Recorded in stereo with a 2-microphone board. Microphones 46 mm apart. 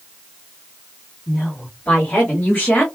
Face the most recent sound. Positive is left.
turn(degrees=30)  # may be behind; listen again after turning